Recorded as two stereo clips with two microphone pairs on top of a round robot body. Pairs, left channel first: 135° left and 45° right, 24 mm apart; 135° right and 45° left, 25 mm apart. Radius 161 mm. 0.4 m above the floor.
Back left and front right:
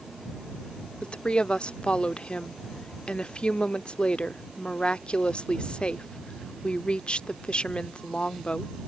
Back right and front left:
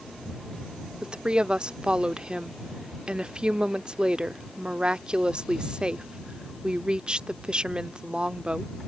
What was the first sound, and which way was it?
A woman speaking, 90° left.